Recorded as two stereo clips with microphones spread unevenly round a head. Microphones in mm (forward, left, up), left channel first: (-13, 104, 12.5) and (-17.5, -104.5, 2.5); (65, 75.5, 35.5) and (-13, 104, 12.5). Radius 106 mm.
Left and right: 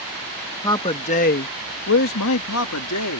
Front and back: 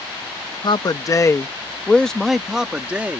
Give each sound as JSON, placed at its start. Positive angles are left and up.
{"t": 0.6, "sound": "a man speaking", "azimuth_deg": 15}